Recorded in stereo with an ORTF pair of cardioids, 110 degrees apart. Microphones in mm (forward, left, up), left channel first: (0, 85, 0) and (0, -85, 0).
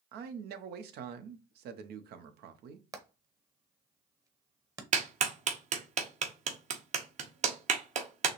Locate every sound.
0.1 s a man speaking: 70° right, 0.9 m
2.9 s hammering: 20° right, 1.1 m
4.9 s a clap: 45° right, 1.2 m